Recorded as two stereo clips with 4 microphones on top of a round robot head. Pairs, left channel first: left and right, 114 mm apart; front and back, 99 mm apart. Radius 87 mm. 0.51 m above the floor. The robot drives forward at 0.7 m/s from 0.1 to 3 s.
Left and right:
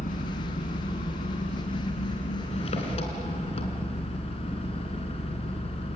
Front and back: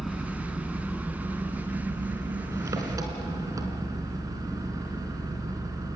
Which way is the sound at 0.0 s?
90° left.